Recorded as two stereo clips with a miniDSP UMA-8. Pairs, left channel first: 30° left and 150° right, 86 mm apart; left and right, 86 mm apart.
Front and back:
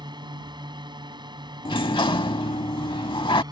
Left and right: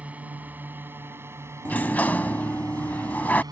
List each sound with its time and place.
0.0 s a drone: 160° right; by 3.5 s 120° right
1.6 s a sliding door: 20° left